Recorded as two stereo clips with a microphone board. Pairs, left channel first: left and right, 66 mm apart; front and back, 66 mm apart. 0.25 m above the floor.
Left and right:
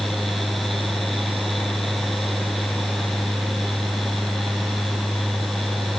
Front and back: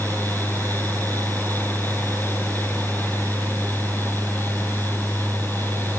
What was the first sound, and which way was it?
Only background noise.